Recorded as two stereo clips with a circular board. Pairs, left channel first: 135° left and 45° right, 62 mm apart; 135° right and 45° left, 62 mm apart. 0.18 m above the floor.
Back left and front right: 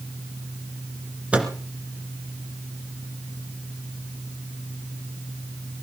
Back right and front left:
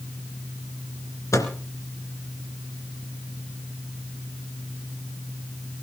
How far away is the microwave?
About 2 m.